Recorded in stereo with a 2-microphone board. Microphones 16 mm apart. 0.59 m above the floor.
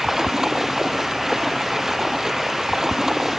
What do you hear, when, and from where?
0.0 s running water: 30° right (ahead or behind)